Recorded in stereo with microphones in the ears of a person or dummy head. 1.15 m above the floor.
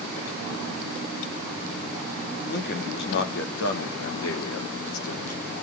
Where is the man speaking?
60° left (ahead or behind), 2.5 m; by 5.5 s 85° left, 3 m.